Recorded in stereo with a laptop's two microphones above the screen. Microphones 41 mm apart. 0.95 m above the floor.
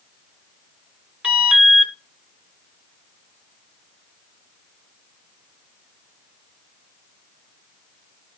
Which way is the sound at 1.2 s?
20° right (ahead or behind).